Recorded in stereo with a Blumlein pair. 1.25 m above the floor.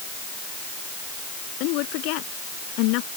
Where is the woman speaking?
45° left.